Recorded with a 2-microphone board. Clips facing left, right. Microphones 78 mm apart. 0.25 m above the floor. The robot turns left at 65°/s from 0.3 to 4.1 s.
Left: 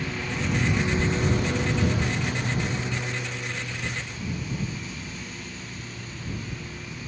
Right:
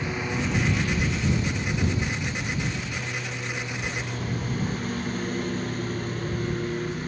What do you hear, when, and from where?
0.0 s a lawn mower: 165° right; by 7.1 s 50° right